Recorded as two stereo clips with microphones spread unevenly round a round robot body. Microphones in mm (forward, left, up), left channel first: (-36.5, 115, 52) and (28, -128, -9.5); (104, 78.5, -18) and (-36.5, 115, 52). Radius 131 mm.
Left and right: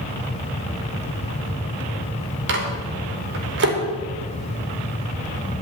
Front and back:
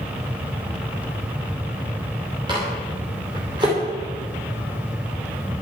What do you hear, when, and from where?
2.5 s a microwave: 120° right, 3 m